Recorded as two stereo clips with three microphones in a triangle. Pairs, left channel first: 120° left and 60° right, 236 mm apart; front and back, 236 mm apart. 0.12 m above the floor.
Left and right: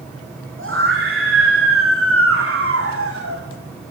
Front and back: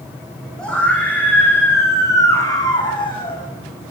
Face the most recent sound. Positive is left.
turn(degrees=-65)